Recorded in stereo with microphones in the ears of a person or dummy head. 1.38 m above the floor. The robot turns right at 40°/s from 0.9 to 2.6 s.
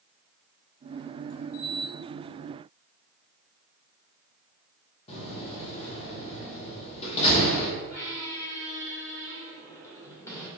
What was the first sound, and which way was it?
A door slam, 35° left (ahead or behind).